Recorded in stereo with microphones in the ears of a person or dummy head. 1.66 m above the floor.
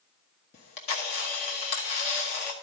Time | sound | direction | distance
0.5 | a camera shutter | 30° left (ahead or behind) | 1.1 m